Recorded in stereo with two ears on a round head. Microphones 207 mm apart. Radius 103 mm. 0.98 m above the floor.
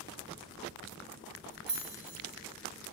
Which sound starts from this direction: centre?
Keys jangling, at 1.7 s.